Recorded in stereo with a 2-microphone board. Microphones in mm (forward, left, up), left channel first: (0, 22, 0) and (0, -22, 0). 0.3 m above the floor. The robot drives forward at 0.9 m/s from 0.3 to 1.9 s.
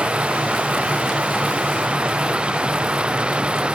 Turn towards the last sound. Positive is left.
turn(degrees=-25)  # may be behind; listen again after turning